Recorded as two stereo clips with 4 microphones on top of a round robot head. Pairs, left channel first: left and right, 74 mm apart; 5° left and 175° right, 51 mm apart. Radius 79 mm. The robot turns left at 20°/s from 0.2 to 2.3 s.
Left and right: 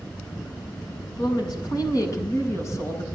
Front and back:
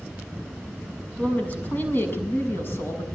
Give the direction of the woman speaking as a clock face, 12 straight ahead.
10 o'clock.